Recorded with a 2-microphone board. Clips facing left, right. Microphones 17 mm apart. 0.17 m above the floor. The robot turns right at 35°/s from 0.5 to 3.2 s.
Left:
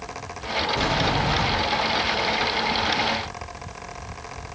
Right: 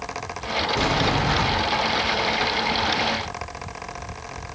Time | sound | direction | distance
0.7 | a sliding door | 125° right | 1.0 m